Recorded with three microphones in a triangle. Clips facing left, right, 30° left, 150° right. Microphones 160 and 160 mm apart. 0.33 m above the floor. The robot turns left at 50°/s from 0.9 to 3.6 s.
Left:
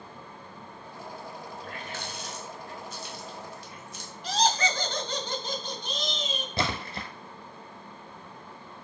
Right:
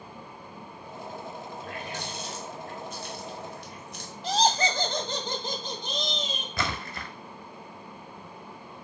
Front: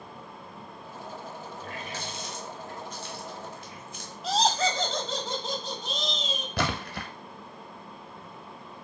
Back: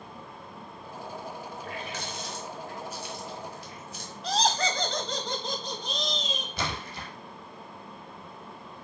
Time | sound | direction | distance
1.6 | a running tap | straight ahead | 1.1 m
4.2 | laughter | 55° right | 1.4 m
6.6 | a splash | 35° left | 0.7 m